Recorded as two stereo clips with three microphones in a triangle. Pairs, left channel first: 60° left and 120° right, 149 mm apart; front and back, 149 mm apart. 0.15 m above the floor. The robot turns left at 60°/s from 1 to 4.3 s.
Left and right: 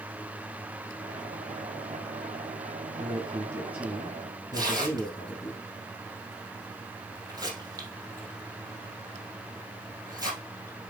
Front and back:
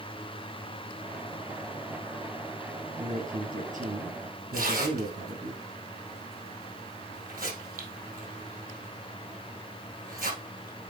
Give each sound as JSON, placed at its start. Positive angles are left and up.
{"t": 3.0, "sound": "a man speaking", "azimuth_deg": -150, "distance_m": 4.0}
{"t": 4.5, "sound": "tearing paper", "azimuth_deg": 175, "distance_m": 3.0}